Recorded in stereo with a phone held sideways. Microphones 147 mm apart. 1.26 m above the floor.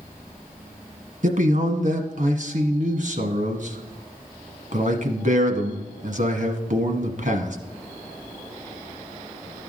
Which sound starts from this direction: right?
A man speaking, at 1.2 s.